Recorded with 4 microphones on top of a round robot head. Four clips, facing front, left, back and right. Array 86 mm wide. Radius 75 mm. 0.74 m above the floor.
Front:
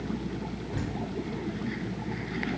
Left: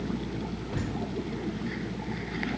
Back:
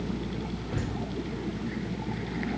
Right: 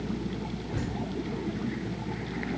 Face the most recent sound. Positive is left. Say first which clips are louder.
# even, back 1 dB
turn(degrees=150)